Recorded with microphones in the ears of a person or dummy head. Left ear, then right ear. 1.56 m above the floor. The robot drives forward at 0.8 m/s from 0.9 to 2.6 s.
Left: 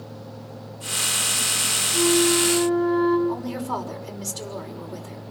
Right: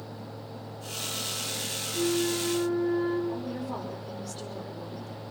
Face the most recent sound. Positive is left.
turn(degrees=65)  # may be behind; listen again after turning